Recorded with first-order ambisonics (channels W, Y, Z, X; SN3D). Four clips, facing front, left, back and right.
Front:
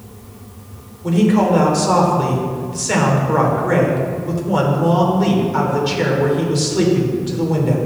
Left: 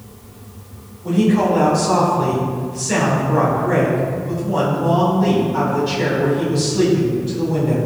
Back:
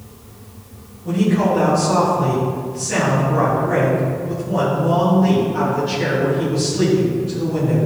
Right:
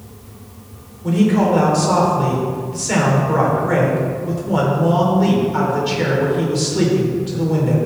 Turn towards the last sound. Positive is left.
turn(degrees=-25)